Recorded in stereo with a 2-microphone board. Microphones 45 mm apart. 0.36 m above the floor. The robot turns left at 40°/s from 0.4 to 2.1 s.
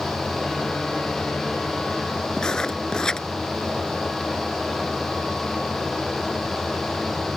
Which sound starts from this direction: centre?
Writing, at 2.4 s.